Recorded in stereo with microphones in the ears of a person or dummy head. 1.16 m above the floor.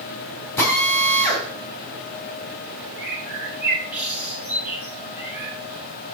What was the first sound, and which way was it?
A drill, 20° left (ahead or behind).